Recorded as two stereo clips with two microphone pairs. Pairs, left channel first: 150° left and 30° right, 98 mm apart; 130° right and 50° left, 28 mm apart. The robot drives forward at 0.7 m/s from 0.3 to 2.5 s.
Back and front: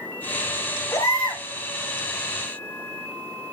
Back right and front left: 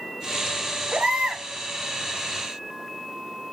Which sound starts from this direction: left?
A baby crying, at 0.9 s.